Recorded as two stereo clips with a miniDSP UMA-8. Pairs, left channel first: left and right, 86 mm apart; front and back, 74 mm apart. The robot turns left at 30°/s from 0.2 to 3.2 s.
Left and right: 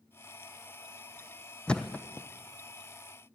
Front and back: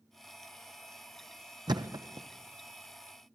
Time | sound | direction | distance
1.7 | a thud | 170° left | 1.0 m